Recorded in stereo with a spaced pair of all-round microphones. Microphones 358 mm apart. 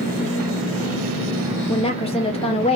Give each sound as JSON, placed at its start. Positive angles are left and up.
{"t": 1.7, "sound": "a woman speaking", "side_deg": 15, "distance_m": 0.6}